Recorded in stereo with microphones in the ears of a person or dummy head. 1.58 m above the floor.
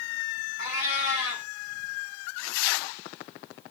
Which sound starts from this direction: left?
A cat meowing, at 0.6 s.